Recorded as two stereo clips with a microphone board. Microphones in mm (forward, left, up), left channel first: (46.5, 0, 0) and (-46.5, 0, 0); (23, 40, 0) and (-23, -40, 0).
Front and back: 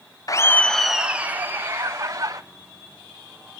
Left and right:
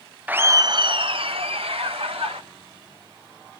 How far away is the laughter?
About 0.6 m.